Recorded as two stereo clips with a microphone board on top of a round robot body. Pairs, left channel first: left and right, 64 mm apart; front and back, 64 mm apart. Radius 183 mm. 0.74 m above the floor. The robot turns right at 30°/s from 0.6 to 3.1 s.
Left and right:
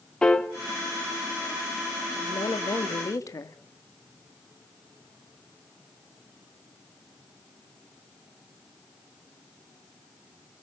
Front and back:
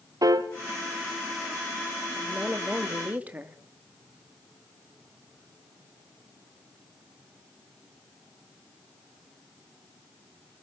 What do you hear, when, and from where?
0.2 s a piano: 165° left, 1.5 m
2.1 s a woman speaking: 85° left, 2.5 m; by 3.6 s 115° left, 2.5 m